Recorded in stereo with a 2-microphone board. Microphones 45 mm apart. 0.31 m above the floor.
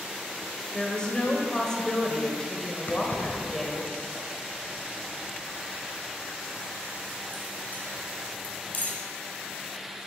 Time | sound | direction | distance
0.7 | a woman speaking | 15° left (ahead or behind) | 0.9 m
2.9 | keys jangling | 40° left (ahead or behind) | 1.0 m